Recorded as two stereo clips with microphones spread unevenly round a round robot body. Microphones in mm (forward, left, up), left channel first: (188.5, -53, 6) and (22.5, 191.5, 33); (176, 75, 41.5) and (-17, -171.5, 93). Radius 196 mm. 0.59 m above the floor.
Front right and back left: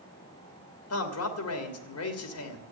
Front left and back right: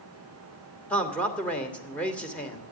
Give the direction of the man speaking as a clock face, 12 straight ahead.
1 o'clock.